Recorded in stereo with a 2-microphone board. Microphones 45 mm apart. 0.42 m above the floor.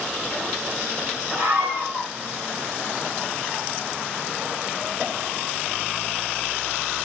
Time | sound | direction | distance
1.3 | a scream | 50° right (ahead or behind) | 2 m